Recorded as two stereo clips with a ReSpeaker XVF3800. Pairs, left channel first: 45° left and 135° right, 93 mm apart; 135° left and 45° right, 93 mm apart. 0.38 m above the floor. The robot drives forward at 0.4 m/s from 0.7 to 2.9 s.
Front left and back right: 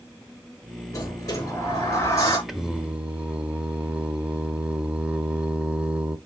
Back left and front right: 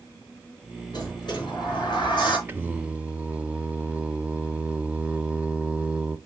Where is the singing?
50° right, 0.7 m; by 6.2 s 90° right, 0.7 m.